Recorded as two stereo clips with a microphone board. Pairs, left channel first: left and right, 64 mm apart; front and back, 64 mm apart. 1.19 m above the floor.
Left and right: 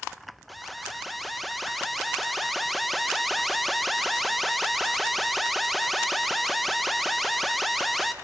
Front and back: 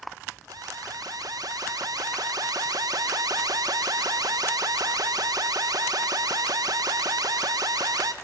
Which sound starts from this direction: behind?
An alarm, at 0.5 s.